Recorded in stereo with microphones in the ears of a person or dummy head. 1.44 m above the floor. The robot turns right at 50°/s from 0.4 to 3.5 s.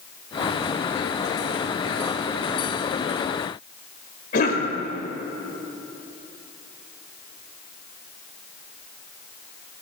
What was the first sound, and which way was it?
A cough, 50° left (ahead or behind).